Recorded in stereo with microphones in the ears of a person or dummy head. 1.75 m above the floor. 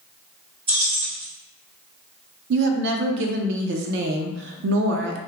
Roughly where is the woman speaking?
Right.